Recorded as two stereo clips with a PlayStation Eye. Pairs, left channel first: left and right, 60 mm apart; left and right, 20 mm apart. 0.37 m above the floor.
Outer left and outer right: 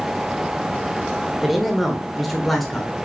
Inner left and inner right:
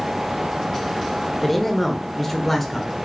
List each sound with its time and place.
1.4 s a man speaking: centre (ahead or behind), 1.3 m; by 3.0 s 5° left (ahead or behind), 1.3 m